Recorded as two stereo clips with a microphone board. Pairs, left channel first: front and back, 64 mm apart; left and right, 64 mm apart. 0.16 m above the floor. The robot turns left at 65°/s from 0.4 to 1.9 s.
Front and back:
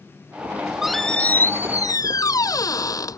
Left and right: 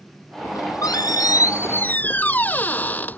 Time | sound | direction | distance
0.4 | a squeak | 120° left | ?